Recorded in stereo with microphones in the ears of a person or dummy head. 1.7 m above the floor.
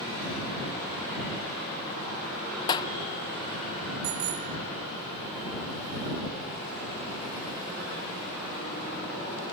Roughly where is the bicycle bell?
Right.